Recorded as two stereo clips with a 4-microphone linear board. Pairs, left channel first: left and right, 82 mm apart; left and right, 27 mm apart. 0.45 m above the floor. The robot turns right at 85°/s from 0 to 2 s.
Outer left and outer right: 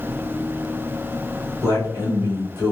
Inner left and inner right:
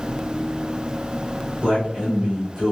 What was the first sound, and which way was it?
A man speaking, 70° right.